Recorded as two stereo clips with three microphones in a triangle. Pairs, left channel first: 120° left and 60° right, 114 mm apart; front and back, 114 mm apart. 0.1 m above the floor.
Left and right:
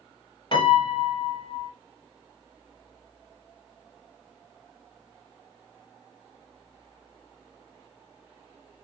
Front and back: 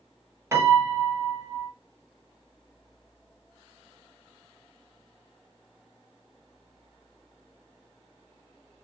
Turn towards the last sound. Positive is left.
turn(degrees=125)